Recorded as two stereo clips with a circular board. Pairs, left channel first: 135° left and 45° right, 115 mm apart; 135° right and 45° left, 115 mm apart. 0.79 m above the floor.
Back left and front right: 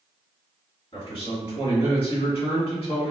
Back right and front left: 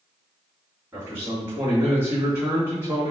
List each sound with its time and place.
0.9 s a man speaking: 110° left, 2.0 m